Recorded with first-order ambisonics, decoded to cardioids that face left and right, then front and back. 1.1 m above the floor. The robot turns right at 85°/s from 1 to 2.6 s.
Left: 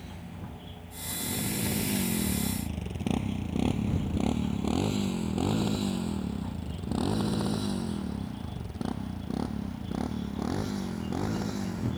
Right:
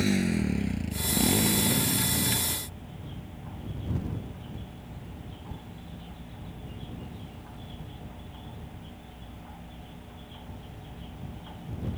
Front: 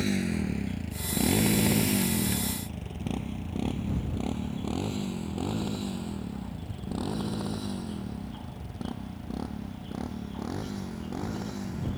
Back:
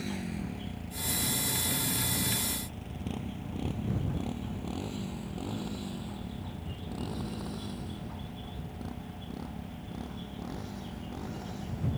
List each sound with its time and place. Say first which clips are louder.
0.0 s a motorcycle: right 17 dB, front 8 dB; 60° right; by 12.0 s 65° left